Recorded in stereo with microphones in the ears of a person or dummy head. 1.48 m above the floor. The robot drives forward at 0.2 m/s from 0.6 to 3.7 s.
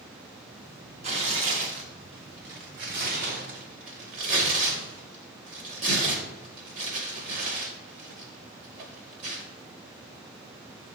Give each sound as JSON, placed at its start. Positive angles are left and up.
{"t": 1.0, "sound": "tearing paper", "side_deg": -40, "distance_m": 0.7}